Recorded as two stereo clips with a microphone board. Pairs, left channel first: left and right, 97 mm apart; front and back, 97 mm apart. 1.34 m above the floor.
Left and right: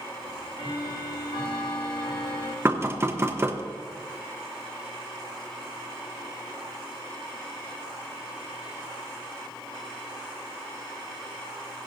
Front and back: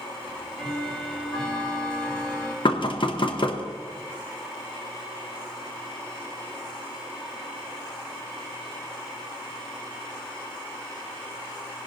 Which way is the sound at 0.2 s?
85° left.